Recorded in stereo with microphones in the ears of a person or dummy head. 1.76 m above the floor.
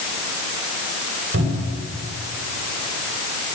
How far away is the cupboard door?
About 9 m.